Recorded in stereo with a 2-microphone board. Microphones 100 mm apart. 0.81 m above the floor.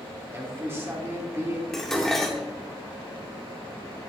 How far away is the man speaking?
About 2 m.